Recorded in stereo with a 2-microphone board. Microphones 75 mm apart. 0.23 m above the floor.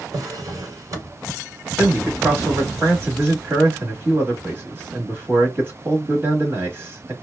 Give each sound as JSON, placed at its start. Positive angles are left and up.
{"t": 0.1, "sound": "a drawer", "side_deg": -50, "distance_m": 1.3}
{"t": 1.8, "sound": "a man speaking", "side_deg": -30, "distance_m": 1.1}